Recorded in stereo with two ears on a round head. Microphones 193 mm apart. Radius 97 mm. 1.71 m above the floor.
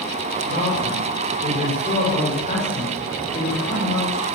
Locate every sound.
0.4 s a man speaking: 35° left (ahead or behind), 8 m